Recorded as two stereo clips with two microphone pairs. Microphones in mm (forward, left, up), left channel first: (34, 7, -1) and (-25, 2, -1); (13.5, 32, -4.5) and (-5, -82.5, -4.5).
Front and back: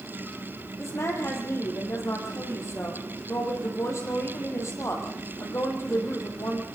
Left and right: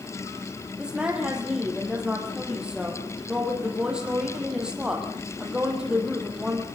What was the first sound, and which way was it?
A woman speaking, 20° right.